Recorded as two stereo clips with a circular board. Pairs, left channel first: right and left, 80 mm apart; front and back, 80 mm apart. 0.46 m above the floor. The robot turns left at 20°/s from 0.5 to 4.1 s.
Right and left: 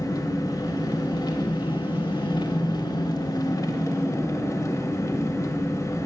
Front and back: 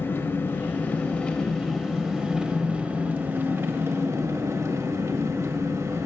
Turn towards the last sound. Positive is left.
turn(degrees=-135)